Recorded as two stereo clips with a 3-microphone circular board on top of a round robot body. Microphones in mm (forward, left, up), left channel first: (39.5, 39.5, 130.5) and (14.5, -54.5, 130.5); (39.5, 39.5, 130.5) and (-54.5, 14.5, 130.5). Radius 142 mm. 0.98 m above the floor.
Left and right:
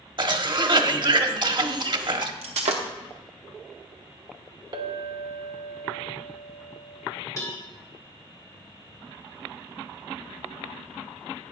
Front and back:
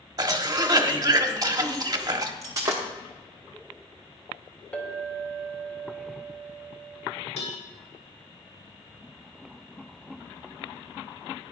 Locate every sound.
0.2 s a cough: 125° right, 1.2 m
2.4 s breaking glass: 105° right, 0.7 m
4.7 s a clink: 60° right, 0.8 m
7.4 s a cowbell: 20° left, 2 m